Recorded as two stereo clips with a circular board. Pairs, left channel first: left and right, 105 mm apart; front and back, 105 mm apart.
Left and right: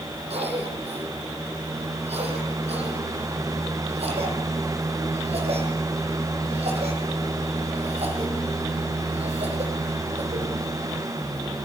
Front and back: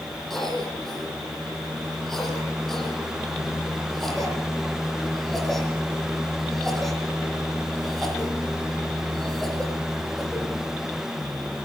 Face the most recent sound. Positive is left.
turn(degrees=-90)